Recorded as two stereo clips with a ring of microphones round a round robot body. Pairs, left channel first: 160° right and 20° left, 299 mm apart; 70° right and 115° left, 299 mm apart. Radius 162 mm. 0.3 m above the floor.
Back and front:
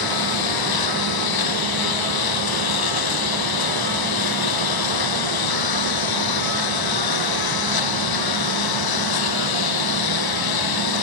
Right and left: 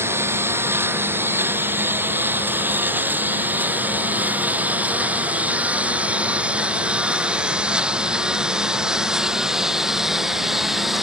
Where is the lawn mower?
165° right; by 11.0 s 160° right.